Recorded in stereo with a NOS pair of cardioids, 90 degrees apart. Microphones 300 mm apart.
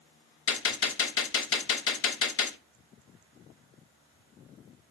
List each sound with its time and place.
0.5 s a gunshot: 50° left, 0.8 m